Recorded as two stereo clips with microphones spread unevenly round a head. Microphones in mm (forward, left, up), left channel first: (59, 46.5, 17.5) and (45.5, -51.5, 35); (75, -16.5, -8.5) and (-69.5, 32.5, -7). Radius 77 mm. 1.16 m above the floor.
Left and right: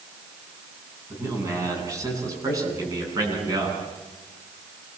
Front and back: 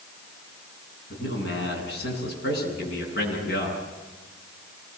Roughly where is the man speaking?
Ahead right.